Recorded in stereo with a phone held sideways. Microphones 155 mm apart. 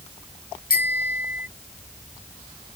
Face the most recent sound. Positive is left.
turn(degrees=70)  # may be behind; listen again after turning